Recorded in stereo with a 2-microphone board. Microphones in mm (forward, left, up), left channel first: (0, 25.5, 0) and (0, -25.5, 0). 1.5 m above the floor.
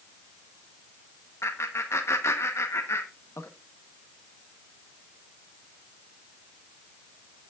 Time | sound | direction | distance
1.4 | laughter | 60° left (ahead or behind) | 1.1 m